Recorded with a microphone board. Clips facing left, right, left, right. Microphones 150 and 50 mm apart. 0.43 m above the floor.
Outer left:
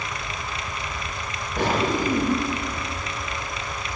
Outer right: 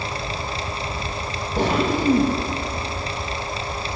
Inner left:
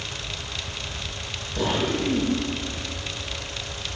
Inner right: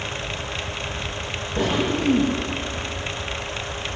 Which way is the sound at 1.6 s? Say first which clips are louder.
Outer right 2 dB, inner right 2 dB; 20° right (ahead or behind).